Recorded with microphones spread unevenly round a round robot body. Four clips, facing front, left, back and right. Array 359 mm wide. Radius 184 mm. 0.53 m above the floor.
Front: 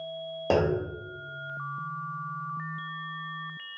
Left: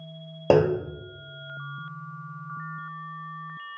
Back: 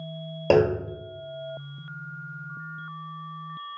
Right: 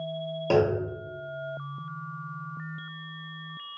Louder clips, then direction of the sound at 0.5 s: Left 3 dB, back 5 dB; 120° left.